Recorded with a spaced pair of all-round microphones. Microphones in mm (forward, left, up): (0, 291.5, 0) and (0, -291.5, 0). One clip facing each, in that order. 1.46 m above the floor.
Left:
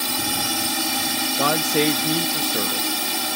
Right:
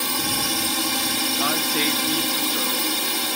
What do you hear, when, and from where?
0.0 s a drone: 5° left (ahead or behind)
1.4 s a man speaking: 65° left (ahead or behind)